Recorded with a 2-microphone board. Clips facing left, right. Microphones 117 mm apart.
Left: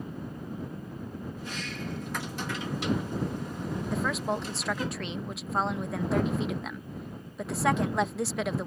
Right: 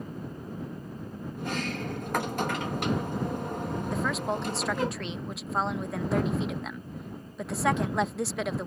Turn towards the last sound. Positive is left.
turn(degrees=0)  # may be behind; listen again after turning